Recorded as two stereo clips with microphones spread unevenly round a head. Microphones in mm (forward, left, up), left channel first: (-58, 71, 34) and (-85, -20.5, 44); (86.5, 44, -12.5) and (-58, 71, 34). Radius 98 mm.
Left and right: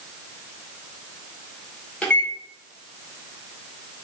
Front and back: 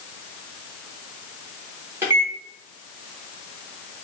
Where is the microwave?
155° left, 0.8 m.